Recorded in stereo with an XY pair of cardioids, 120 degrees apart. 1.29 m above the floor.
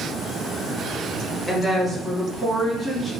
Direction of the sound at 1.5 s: 20° right.